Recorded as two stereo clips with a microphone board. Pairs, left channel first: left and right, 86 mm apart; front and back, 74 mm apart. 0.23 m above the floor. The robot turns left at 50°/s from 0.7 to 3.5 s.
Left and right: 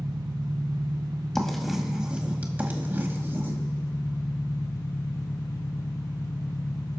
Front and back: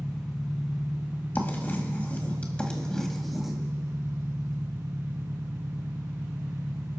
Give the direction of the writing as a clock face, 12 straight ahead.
12 o'clock.